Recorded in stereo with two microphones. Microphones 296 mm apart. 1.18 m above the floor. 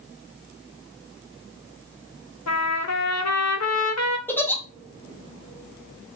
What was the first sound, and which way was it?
A trumpet, 60° left (ahead or behind).